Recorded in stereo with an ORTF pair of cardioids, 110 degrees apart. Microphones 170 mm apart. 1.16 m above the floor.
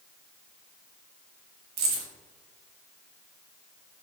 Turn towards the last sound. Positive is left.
turn(degrees=-70)